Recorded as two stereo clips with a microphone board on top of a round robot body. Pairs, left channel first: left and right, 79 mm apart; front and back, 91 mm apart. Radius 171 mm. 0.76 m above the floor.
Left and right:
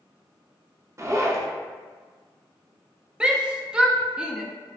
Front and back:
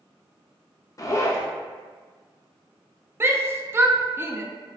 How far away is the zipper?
About 0.6 m.